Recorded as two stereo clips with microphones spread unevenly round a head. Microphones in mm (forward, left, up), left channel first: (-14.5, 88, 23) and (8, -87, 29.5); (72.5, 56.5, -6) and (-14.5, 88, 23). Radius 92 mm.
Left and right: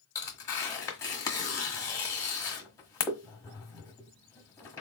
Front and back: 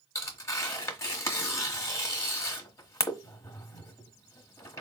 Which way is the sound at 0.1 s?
35° left.